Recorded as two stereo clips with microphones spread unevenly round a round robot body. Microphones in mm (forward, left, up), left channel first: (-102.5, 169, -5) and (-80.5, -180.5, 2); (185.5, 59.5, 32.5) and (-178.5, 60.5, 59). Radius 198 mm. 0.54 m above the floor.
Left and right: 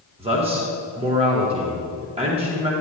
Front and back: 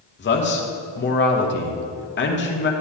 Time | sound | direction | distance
0.2 | a man speaking | 20° right | 1.0 m